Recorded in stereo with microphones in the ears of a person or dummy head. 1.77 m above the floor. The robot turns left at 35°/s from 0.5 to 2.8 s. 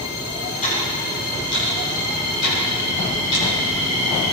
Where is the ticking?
40° left (ahead or behind), 8.5 m; by 3.5 s 65° left (ahead or behind), 8.5 m.